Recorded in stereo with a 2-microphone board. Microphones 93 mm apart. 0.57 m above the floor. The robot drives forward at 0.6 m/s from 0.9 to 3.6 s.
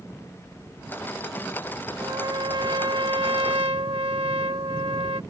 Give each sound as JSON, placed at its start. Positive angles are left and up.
{"t": 2.0, "sound": "a trumpet", "side_deg": -55}